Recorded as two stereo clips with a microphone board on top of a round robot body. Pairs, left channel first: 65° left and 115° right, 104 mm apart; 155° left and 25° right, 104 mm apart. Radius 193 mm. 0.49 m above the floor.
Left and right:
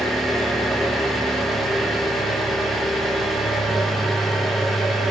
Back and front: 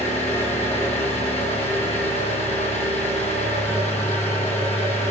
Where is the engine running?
155° left, 3 m.